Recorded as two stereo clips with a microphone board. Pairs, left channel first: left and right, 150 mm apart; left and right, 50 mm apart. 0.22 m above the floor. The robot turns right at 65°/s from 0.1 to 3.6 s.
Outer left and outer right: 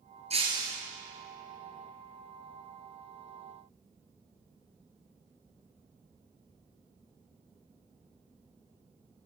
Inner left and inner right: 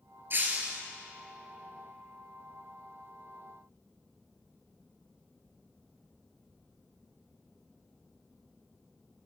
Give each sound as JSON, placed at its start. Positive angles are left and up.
{"t": 0.3, "sound": "breaking glass", "azimuth_deg": -45, "distance_m": 1.5}